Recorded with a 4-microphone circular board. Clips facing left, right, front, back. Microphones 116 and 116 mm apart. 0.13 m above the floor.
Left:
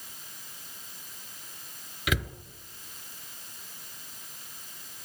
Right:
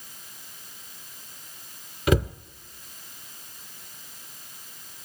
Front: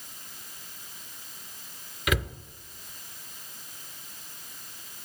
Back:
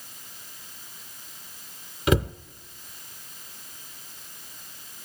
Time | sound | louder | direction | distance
2.1 | a cupboard door | right 9 dB, back 7 dB | 130° right | 0.6 m